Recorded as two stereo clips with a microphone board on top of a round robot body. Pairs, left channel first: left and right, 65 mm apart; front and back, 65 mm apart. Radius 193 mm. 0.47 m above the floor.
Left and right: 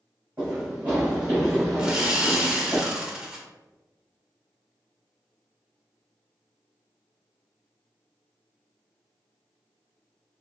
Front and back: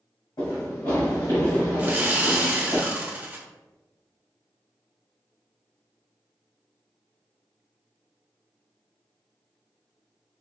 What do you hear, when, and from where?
0.4 s running footsteps: 30° right, 1.9 m; by 2.8 s 5° right, 2.5 m
1.8 s sawing: 155° right, 1.0 m